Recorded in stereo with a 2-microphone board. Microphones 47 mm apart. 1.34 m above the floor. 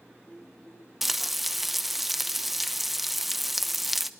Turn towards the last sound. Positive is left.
turn(degrees=-5)  # may be behind; listen again after turning